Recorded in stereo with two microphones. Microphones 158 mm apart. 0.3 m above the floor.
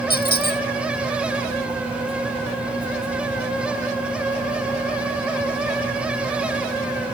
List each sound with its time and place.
0.1 s a squeak: 75° left (ahead or behind)